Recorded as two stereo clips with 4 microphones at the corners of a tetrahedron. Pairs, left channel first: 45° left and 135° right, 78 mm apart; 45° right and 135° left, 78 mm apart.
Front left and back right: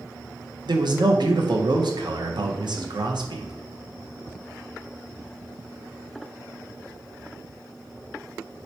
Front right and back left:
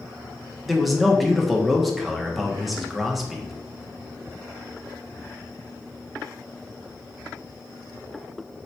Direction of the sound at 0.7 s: 135° right.